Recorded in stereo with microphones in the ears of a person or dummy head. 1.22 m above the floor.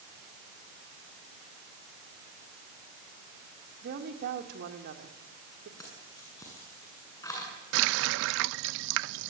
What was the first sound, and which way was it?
A woman speaking, 60° right (ahead or behind).